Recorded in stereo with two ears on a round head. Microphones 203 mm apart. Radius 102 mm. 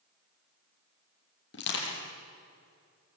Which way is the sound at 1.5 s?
55° left (ahead or behind).